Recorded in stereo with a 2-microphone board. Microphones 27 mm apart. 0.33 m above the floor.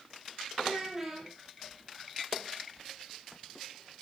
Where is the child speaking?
10° right (ahead or behind), 6.5 m.